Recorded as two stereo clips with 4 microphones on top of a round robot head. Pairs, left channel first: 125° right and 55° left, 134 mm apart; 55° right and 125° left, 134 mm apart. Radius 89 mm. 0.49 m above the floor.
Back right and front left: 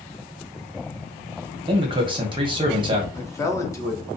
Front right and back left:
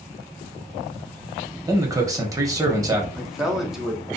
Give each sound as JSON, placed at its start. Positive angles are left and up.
{"t": 1.7, "sound": "a man speaking", "azimuth_deg": 75, "distance_m": 0.9}
{"t": 3.1, "sound": "a man speaking", "azimuth_deg": -150, "distance_m": 0.7}